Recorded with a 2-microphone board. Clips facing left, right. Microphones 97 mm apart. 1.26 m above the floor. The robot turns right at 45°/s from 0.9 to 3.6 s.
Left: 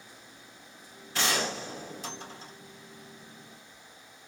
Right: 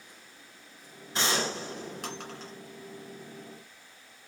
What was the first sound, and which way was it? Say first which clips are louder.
A gunshot: even; 160° right.